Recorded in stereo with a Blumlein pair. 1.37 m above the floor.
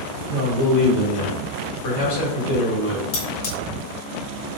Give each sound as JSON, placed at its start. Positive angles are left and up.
{"t": 0.3, "sound": "a man speaking", "azimuth_deg": 50, "distance_m": 2.0}
{"t": 3.1, "sound": "cutlery clinking", "azimuth_deg": 50, "distance_m": 1.7}